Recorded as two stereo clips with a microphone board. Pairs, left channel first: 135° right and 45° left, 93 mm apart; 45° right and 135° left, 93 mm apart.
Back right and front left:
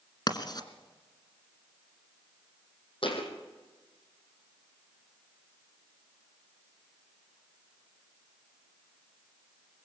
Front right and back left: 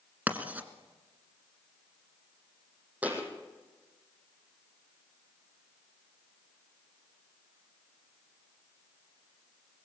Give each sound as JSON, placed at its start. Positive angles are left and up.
{"t": 0.3, "sound": "writing", "azimuth_deg": -155, "distance_m": 1.8}
{"t": 3.0, "sound": "a thud", "azimuth_deg": -150, "distance_m": 4.0}